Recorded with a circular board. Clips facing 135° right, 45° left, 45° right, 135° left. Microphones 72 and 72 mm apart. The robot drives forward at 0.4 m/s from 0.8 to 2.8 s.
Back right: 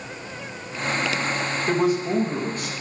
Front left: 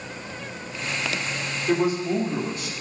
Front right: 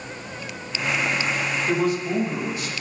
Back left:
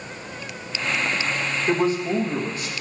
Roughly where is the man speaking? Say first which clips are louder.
Even, back left 2 dB; behind.